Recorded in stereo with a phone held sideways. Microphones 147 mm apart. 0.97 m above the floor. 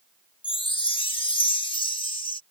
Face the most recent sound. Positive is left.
turn(degrees=35)  # may be behind; listen again after turning